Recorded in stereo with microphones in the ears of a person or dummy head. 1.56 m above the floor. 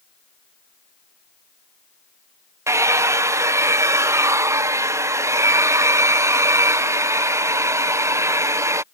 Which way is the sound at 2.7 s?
15° right (ahead or behind).